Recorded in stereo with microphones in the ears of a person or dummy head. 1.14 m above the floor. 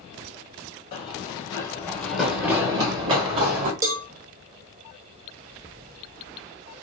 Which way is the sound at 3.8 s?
20° right (ahead or behind).